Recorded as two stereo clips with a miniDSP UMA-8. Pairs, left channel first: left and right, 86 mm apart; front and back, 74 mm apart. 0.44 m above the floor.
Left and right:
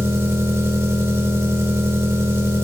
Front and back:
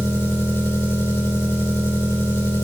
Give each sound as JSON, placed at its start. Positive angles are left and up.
{"t": 0.0, "sound": "an engine running", "azimuth_deg": -45, "distance_m": 1.2}